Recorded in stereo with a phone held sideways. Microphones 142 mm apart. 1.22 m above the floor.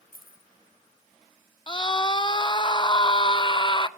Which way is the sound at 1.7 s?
35° left (ahead or behind).